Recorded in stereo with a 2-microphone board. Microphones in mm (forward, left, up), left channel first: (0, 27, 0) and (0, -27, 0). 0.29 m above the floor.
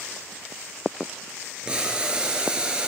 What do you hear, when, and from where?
1.6 s boiling: 20° right (ahead or behind), 1.0 m